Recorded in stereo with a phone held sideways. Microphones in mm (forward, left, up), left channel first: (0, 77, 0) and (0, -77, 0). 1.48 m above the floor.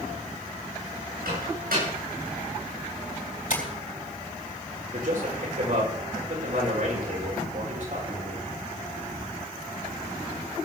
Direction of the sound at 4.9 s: 65° right (ahead or behind).